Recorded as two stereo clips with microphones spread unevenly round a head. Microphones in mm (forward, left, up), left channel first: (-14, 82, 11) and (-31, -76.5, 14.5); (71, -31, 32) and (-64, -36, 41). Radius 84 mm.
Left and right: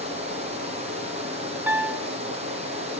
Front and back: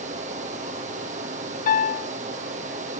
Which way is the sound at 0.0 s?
145° right.